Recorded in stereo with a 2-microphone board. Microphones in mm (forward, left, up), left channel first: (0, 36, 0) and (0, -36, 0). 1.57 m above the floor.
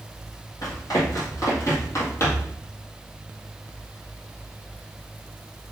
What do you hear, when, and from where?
0.6 s running footsteps: 55° left (ahead or behind), 3 m; by 2.5 s 35° left (ahead or behind), 1.9 m